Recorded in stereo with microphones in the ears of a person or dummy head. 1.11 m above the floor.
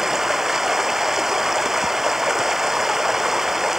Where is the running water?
5° right (ahead or behind).